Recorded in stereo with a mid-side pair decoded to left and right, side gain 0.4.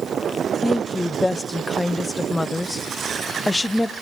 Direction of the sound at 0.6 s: 15° left.